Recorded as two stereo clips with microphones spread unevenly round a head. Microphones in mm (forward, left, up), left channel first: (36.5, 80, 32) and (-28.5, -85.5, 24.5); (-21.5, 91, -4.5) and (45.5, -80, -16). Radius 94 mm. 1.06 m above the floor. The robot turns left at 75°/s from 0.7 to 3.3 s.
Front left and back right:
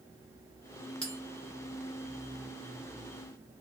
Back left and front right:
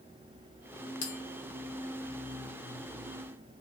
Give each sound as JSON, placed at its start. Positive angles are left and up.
{"t": 1.0, "sound": "a bell", "azimuth_deg": 150, "distance_m": 0.9}